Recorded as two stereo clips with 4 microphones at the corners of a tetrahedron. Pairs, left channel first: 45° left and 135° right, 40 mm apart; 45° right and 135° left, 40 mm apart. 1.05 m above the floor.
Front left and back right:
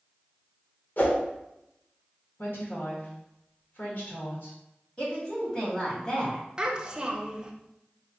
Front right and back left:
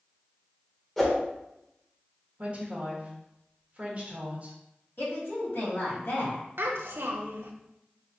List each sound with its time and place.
1.0 s a whoosh: 35° left, 1.1 m
2.4 s a woman speaking: 75° left, 1.5 m
5.0 s a woman speaking: 20° right, 2 m
6.6 s a child speaking: 155° left, 0.8 m